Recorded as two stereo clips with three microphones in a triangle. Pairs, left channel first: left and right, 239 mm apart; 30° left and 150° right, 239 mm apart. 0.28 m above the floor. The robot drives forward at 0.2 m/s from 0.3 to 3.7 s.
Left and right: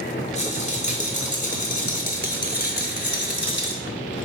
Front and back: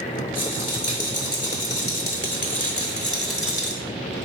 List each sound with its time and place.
0.3 s a rattle: 30° left, 1.2 m; by 3.8 s 60° left, 0.8 m